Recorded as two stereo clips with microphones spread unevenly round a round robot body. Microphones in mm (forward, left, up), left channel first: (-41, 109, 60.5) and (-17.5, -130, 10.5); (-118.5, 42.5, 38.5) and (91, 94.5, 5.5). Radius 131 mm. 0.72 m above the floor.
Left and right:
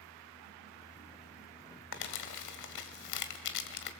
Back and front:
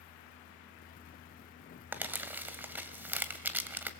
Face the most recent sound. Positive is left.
turn(degrees=95)